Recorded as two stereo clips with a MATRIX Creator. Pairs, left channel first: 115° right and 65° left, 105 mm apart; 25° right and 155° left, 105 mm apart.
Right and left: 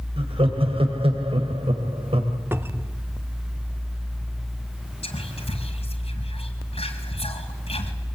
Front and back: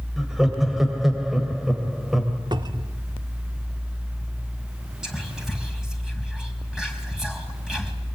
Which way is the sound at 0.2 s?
70° left.